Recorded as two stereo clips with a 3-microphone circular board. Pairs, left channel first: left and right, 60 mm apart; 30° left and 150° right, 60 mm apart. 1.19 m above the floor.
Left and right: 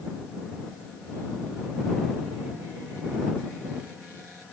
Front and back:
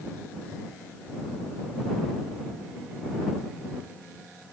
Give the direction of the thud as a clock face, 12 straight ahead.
No thud in this recording.